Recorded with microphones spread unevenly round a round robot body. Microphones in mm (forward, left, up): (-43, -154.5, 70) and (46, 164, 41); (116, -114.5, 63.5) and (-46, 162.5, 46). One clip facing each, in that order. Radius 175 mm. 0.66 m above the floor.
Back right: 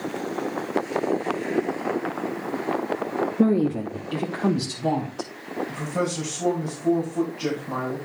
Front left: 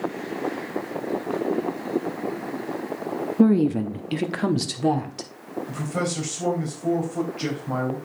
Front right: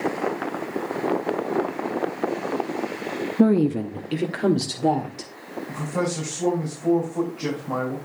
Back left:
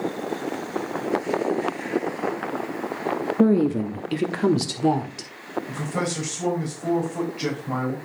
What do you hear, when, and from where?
3.4 s a woman speaking: 5° left, 0.7 m; by 5.3 s 60° left, 1.9 m
5.7 s a man speaking: 65° left, 4 m